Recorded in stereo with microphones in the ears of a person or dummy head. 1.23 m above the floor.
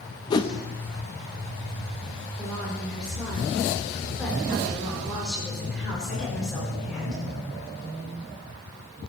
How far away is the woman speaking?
About 3.5 m.